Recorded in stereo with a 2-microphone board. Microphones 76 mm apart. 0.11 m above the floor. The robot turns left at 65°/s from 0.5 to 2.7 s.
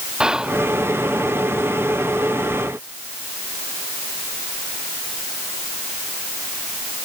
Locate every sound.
0.2 s whispering: 10° right (ahead or behind); by 0.6 s centre (ahead or behind)